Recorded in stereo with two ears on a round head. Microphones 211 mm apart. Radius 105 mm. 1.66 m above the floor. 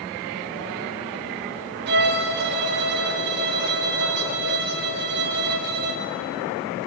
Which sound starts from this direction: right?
A violin, at 1.9 s.